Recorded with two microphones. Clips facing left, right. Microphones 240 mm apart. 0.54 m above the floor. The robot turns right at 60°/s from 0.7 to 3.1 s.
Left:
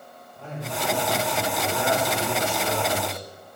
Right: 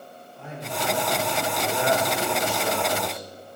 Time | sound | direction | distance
0.3 | a man speaking | 150° left | 3 m